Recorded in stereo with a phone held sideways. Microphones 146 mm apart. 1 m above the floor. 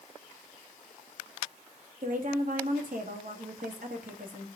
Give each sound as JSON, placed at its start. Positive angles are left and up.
{"t": 2.0, "sound": "a woman speaking", "side_deg": -70, "distance_m": 1.5}